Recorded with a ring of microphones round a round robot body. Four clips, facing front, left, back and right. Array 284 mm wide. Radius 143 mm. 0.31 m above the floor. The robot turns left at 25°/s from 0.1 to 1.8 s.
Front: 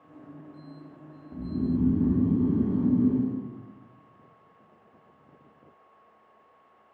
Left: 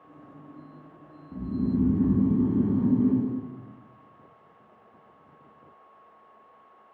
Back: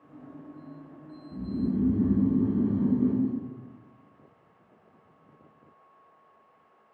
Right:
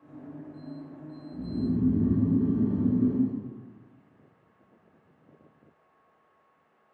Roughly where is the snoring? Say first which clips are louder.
Left 2 dB, front 1 dB; behind left.